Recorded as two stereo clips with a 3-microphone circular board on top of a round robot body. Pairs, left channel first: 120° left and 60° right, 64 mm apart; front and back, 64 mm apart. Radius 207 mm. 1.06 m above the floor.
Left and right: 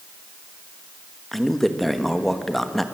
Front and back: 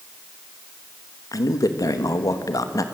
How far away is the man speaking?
About 1.4 m.